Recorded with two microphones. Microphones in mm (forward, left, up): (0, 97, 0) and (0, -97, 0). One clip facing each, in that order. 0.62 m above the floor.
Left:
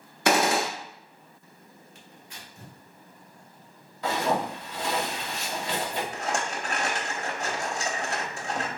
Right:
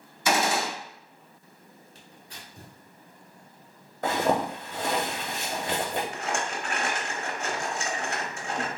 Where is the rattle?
35° left (ahead or behind), 0.7 m.